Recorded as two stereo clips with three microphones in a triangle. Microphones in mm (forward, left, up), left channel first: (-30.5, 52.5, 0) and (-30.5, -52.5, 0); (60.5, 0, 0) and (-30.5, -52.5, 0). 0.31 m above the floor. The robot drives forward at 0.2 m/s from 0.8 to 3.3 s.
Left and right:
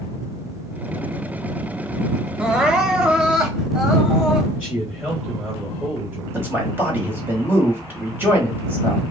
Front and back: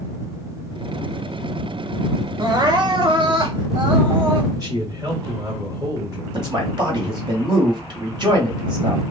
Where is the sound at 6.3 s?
155° right, 1.3 m.